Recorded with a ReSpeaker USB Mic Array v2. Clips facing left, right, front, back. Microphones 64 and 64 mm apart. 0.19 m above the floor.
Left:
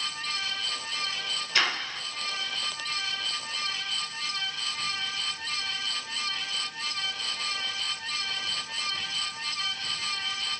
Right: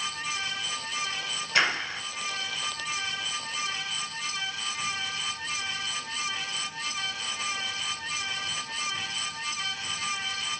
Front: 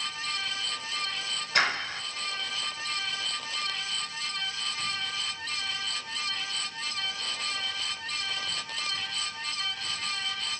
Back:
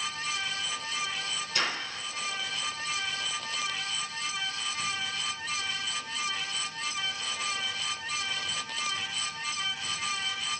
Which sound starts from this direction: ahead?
A clap, at 1.6 s.